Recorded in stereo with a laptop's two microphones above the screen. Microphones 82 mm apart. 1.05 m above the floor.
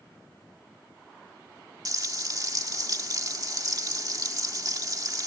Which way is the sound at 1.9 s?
45° right (ahead or behind).